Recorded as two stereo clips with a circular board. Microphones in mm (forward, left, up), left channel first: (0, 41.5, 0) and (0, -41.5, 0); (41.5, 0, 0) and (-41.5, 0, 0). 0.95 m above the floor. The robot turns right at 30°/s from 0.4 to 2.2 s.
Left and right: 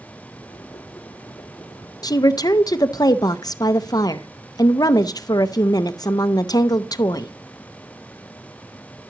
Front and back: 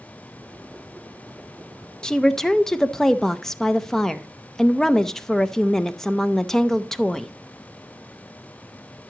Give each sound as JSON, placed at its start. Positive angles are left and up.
{"t": 2.0, "sound": "a woman speaking", "azimuth_deg": 80, "distance_m": 0.5}